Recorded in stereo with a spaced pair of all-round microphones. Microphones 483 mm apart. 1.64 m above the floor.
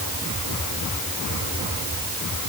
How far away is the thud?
No thud in this recording.